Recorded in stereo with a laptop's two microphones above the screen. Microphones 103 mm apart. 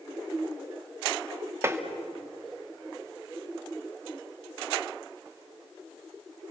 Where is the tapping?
25° right (ahead or behind), 2.0 m.